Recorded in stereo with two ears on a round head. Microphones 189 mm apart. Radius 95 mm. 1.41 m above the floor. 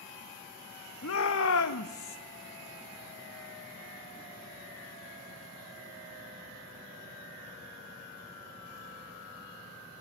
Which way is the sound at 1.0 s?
70° left (ahead or behind).